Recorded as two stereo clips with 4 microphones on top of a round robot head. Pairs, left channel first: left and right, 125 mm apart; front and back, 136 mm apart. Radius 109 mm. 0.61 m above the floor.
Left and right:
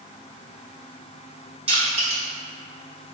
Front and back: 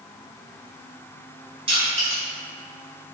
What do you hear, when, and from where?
1.7 s crushing: 130° right, 1.3 m